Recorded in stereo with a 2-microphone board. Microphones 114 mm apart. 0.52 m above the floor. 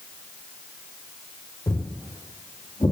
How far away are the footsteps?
About 5 m.